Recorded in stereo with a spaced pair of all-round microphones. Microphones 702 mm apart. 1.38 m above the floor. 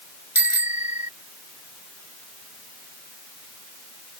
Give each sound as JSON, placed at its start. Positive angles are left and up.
{"t": 0.3, "sound": "a bicycle bell", "side_deg": 45}